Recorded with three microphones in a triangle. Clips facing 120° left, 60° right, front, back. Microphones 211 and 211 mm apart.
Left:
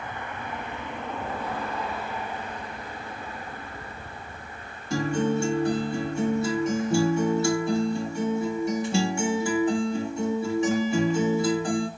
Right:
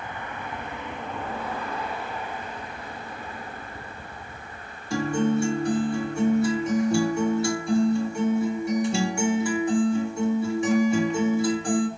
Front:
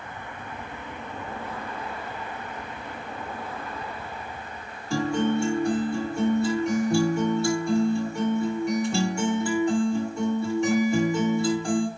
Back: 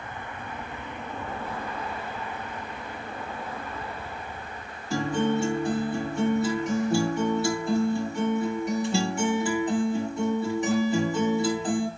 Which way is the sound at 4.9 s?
95° left.